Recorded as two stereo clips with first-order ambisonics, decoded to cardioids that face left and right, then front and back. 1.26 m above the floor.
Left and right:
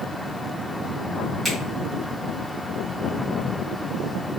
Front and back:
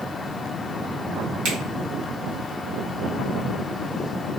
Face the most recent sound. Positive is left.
turn(degrees=180)